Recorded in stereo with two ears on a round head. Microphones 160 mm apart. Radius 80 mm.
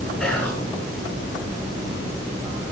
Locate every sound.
0.2 s whispering: 5° left (ahead or behind), 7 m